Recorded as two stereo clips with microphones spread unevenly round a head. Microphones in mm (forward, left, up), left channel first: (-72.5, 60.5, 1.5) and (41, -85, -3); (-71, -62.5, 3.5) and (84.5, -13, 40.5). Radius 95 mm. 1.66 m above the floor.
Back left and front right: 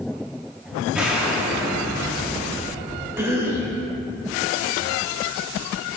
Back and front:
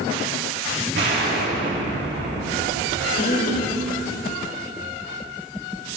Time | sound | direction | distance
0.9 | an explosion | 35° left | 1.2 m
3.2 | a cough | 130° right | 2 m